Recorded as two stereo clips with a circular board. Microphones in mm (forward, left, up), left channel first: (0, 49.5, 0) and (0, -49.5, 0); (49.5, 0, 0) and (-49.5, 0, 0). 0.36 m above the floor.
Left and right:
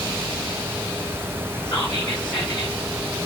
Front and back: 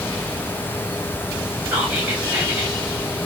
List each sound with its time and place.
1.7 s whispering: 110° left, 1.6 m